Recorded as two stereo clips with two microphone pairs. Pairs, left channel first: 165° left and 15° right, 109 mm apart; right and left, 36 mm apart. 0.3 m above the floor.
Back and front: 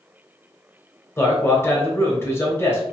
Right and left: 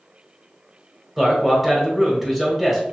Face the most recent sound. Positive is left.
turn(degrees=160)